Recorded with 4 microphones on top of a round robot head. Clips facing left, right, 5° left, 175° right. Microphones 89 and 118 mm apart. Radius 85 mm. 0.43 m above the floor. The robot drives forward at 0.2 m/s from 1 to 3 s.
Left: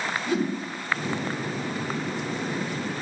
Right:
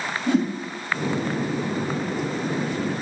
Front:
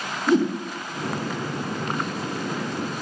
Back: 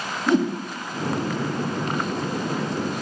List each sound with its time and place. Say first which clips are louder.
0.3 s a whoosh: right 5 dB, front 1 dB; 145° right, 3.5 m